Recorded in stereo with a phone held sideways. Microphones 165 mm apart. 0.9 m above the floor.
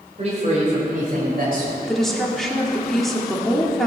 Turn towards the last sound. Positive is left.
turn(degrees=0)  # may be behind; listen again after turning